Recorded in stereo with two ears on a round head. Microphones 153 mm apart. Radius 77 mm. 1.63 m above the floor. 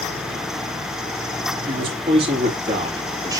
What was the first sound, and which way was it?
A man speaking, 35° right (ahead or behind).